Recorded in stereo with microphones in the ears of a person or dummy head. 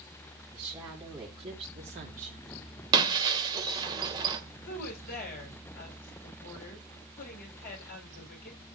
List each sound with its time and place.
0.5 s a woman speaking: 15° right (ahead or behind), 3.5 m; by 2.5 s 50° right (ahead or behind), 3 m
2.9 s breaking glass: 25° right (ahead or behind), 2 m
4.7 s a woman speaking: 50° left (ahead or behind), 7.5 m